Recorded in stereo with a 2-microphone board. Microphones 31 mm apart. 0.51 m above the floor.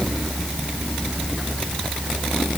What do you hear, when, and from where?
Only background noise.